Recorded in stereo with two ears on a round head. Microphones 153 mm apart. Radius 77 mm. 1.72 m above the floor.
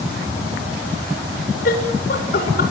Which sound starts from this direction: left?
Laughter, at 1.6 s.